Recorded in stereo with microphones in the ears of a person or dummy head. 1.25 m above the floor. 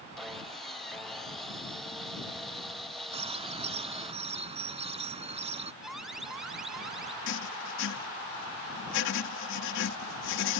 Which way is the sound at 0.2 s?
5° right (ahead or behind).